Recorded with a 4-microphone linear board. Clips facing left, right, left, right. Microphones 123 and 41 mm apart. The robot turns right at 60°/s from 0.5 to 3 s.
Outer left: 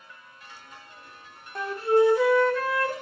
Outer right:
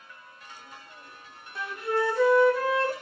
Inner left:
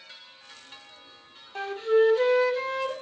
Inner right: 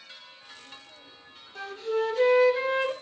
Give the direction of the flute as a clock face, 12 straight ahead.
8 o'clock.